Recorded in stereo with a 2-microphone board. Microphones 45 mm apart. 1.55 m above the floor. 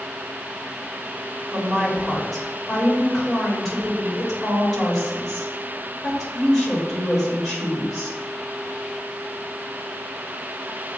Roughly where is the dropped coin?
I don't hear a dropped coin.